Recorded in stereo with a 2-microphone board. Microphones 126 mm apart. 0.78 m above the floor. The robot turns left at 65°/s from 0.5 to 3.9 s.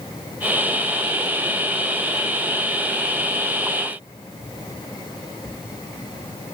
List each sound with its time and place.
Only background noise.